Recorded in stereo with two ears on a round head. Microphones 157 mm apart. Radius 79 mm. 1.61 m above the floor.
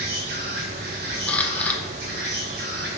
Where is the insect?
60° right (ahead or behind), 2 m.